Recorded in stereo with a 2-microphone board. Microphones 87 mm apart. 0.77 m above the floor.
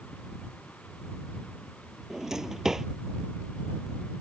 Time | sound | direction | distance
2.1 | a drawer | 5° right (ahead or behind) | ?